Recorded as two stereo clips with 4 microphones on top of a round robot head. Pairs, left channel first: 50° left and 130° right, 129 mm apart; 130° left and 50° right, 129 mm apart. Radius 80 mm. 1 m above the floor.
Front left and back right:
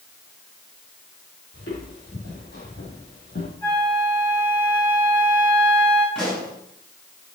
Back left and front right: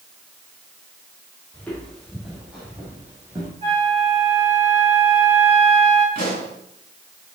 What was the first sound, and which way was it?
Footsteps, 50° left.